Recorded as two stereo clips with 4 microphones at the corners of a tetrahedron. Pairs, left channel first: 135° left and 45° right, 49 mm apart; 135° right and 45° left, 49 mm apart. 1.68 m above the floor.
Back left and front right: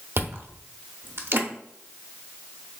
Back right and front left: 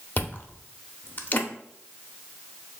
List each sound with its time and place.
0.2 s chewing: 85° right, 0.7 m